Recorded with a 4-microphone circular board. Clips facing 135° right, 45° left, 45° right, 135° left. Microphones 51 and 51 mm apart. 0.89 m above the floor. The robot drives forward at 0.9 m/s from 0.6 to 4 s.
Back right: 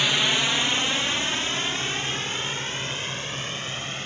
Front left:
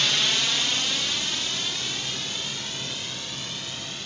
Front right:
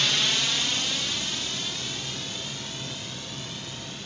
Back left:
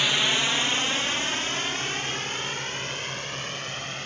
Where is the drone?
Straight behind; by 4.1 s 170° left.